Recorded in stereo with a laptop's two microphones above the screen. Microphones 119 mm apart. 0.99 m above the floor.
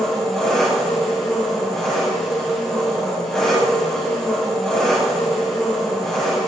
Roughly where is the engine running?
Centre.